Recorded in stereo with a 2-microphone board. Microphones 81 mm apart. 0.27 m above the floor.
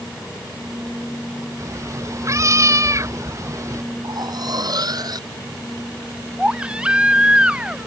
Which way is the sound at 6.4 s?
15° right (ahead or behind).